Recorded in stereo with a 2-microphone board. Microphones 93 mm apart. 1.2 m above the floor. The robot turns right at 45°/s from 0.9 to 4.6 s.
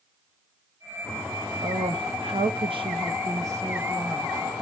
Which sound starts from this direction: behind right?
A woman speaking, at 1.6 s.